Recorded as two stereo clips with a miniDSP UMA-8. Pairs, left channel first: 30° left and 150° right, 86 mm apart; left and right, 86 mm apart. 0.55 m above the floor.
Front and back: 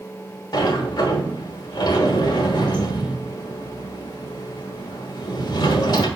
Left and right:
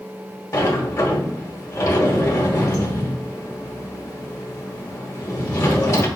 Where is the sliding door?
50° left, 1.1 m.